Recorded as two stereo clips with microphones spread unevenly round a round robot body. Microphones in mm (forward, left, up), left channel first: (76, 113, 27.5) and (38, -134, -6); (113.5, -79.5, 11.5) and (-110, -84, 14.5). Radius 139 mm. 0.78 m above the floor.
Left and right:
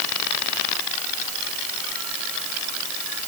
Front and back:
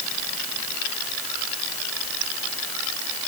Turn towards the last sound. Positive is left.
No sound to turn to.